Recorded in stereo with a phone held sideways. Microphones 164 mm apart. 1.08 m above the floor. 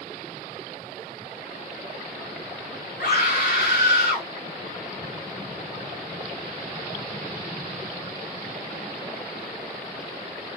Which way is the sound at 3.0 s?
85° left.